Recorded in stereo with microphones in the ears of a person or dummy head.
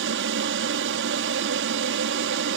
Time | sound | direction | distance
0.0 | an aircraft | 60° right (ahead or behind) | ?